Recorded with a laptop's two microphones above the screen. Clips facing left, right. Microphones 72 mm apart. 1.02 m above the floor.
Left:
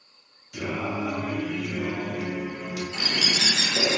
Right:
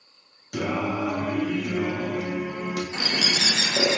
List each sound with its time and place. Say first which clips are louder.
0.5 s singing: right 3 dB; 70° right (ahead or behind), 0.7 m
2.9 s a bird: right 1 dB; 35° right (ahead or behind), 0.6 m